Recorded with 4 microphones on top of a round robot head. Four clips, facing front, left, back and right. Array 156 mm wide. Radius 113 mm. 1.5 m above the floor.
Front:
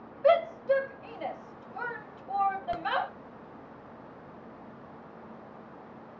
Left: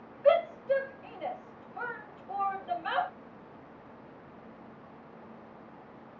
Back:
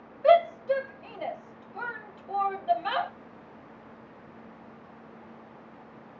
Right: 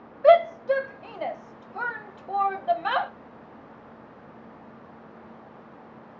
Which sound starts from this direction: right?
A shout, at 0.2 s.